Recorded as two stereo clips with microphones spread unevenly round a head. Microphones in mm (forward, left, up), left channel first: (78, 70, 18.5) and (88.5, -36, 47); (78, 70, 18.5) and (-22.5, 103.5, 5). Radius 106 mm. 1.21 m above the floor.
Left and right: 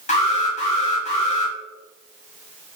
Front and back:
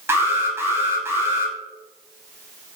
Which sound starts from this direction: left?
An alarm, at 0.1 s.